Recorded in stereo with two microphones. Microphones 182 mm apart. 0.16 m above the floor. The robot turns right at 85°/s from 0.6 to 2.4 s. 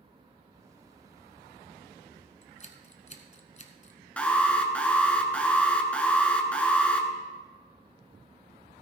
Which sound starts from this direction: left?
Scissors, at 2.4 s.